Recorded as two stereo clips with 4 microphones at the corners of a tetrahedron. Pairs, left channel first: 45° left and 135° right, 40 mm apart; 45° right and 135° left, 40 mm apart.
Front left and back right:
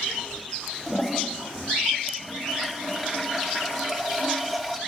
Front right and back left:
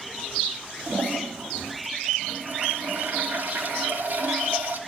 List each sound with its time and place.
0.9 s a toilet flushing: 160° left, 2 m